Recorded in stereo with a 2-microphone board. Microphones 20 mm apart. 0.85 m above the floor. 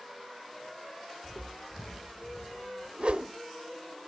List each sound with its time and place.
1.2 s footsteps: 5° left (ahead or behind), 1.4 m; by 2.9 s 60° left (ahead or behind), 2.5 m
3.0 s a whoosh: 55° right (ahead or behind), 0.9 m